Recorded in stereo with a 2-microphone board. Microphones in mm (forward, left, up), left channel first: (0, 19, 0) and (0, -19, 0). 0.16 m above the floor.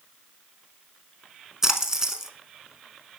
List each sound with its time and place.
1.6 s a splash: 15° right (ahead or behind), 0.8 m